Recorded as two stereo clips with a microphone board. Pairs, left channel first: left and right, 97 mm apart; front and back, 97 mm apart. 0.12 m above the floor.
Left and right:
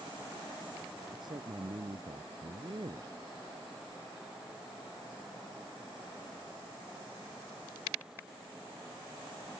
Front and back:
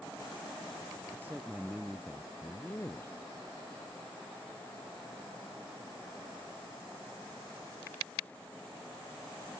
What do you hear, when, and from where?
1.1 s a man speaking: 115° right; by 3.2 s 60° right